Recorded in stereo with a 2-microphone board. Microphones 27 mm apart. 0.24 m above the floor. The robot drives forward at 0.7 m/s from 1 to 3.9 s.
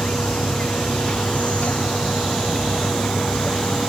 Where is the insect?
60° left (ahead or behind); by 3.9 s 55° left (ahead or behind).